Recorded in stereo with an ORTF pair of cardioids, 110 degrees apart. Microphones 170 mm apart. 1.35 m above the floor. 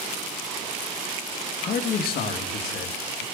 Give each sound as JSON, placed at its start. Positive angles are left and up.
{"t": 1.6, "sound": "a man speaking", "azimuth_deg": 55, "distance_m": 2.0}